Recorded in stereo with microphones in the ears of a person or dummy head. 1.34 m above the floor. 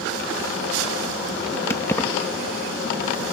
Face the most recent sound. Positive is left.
turn(degrees=10)  # may be behind; listen again after turning